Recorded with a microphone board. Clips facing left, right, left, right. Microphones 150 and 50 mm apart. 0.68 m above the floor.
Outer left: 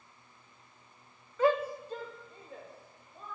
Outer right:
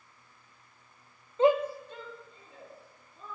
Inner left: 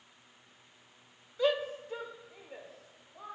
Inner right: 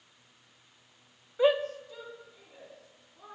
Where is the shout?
25° right (ahead or behind), 0.7 m; by 3.4 s 75° left (ahead or behind), 3 m.